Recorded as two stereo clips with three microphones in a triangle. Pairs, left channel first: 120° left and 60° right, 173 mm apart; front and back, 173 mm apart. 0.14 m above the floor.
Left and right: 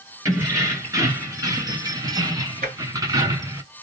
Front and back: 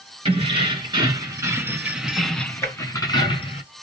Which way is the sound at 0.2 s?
130° right.